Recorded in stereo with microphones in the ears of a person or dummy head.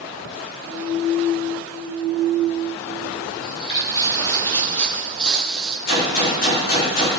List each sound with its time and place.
3.4 s footsteps: 30° left (ahead or behind), 3 m; by 5.8 s 5° right (ahead or behind), 2.5 m
5.9 s a gunshot: 55° left (ahead or behind), 4.5 m